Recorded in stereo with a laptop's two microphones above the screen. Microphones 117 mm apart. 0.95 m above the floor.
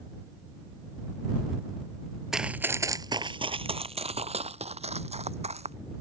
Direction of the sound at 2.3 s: 5° right (ahead or behind).